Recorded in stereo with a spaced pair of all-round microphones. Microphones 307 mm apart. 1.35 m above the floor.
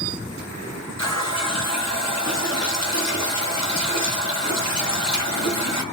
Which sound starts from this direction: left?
A running tap, at 1.0 s.